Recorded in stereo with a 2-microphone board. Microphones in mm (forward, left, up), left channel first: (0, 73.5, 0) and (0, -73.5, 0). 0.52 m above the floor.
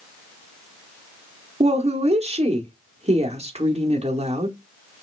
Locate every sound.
1.6 s a woman speaking: 45° right (ahead or behind), 1.0 m